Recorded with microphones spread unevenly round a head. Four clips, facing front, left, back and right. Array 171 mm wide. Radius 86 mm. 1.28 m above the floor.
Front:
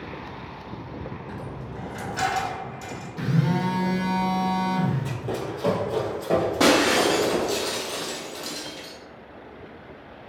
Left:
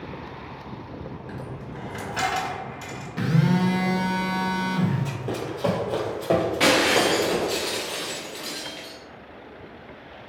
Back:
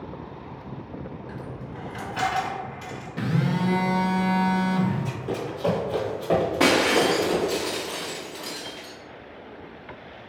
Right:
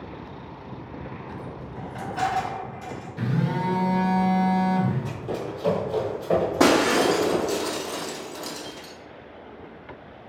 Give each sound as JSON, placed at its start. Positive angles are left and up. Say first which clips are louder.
{"t": 1.3, "sound": "a dropped coin", "louder": "even, front 1 dB", "azimuth_deg": 105, "distance_m": 1.9}
{"t": 3.2, "sound": "a phone buzzing", "louder": "left 4 dB, front 1 dB", "azimuth_deg": 120, "distance_m": 0.9}
{"t": 5.0, "sound": "running footsteps", "louder": "even, even", "azimuth_deg": 75, "distance_m": 1.8}
{"t": 6.6, "sound": "breaking glass", "louder": "right 5 dB, front 2 dB", "azimuth_deg": -90, "distance_m": 0.6}